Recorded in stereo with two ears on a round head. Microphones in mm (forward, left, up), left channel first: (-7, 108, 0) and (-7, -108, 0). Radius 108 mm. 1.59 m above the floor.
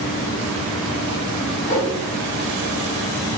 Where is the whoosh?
30° left (ahead or behind), 1.5 m.